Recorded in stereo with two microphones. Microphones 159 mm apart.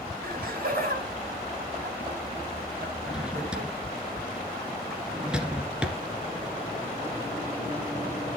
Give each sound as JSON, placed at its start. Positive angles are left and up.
{"t": 0.2, "sound": "laughter", "side_deg": -65, "distance_m": 3.5}
{"t": 3.1, "sound": "a drawer", "side_deg": -5, "distance_m": 2.0}